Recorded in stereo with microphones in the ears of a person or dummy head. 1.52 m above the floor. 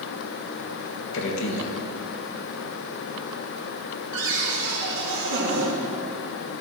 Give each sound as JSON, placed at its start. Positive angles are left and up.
{"t": 1.1, "sound": "a man speaking", "side_deg": 70, "distance_m": 1.6}
{"t": 4.1, "sound": "a cupboard door", "side_deg": -60, "distance_m": 2.0}